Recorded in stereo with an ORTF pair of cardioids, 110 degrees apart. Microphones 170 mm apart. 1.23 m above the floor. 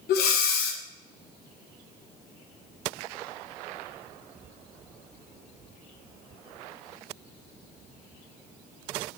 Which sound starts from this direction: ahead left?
Breathing, at 0.1 s.